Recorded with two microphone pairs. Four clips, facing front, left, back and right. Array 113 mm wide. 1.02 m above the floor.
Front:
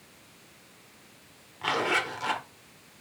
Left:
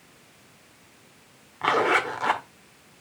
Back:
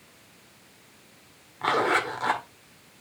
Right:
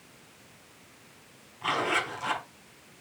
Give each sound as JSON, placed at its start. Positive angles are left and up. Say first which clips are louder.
{"t": 1.6, "sound": "a zipper", "louder": "left 7 dB, back 4 dB", "azimuth_deg": 115, "distance_m": 1.3}